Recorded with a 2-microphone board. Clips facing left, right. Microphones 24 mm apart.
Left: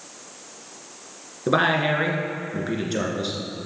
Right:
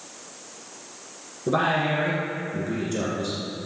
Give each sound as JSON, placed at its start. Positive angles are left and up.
{"t": 1.5, "sound": "a man speaking", "side_deg": 35, "distance_m": 1.8}